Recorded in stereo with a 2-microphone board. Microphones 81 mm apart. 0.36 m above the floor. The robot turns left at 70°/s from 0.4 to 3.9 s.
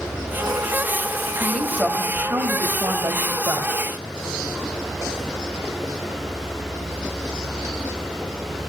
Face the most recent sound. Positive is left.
turn(degrees=-155)